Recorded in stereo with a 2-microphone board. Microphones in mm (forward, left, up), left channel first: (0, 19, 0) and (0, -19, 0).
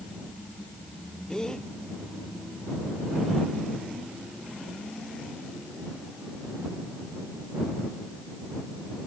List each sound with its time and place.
1.3 s a gasp: 15° left (ahead or behind)